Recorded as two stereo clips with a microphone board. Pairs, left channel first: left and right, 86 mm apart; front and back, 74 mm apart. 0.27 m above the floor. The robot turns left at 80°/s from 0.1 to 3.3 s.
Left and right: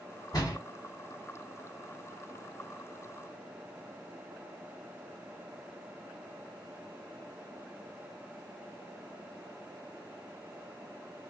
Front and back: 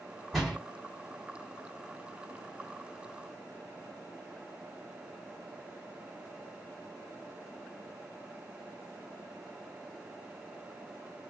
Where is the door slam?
95° left, 1.5 m; by 0.6 s 75° left, 1.5 m.